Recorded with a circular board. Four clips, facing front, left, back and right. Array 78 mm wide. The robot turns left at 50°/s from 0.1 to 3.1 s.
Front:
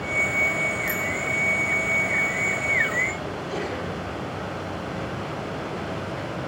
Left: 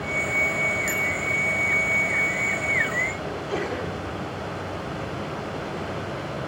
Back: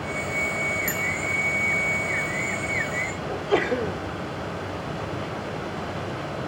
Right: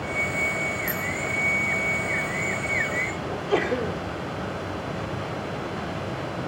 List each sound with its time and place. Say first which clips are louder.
0.9 s a bicycle bell: left 2 dB, front 1 dB; 140° left, 7.5 m; by 1.0 s 135° left, 7.5 m
3.3 s a sneeze: right 4 dB, back 6 dB; 150° right, 2 m